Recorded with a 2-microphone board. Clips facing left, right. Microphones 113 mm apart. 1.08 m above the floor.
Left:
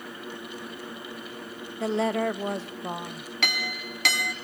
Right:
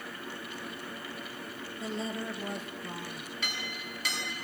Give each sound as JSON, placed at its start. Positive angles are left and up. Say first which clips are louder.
{"t": 1.8, "sound": "a woman speaking", "louder": "left 11 dB", "side_deg": 70, "distance_m": 0.9}
{"t": 3.4, "sound": "a clink", "louder": "left 10 dB", "side_deg": 75, "distance_m": 1.2}